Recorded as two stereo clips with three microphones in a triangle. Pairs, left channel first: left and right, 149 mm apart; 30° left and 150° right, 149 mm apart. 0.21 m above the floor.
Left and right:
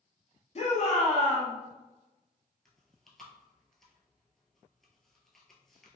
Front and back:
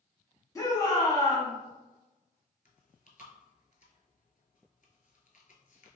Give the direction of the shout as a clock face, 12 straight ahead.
9 o'clock.